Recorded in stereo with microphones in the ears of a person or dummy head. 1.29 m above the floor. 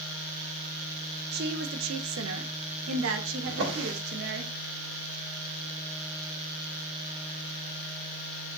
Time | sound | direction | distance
1.3 | a woman speaking | 50° right (ahead or behind) | 1.1 m
3.5 | a drawer | 80° right | 2.5 m